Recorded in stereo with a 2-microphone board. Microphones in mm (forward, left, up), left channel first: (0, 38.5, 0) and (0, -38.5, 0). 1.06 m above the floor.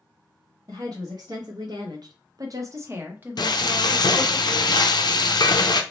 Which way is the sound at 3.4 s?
70° left (ahead or behind).